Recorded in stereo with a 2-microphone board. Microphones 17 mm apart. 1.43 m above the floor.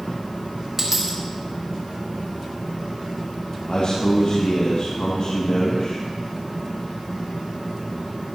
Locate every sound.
0.8 s a dropped coin: 25° right (ahead or behind), 2 m
3.7 s a man speaking: 75° left (ahead or behind), 2.5 m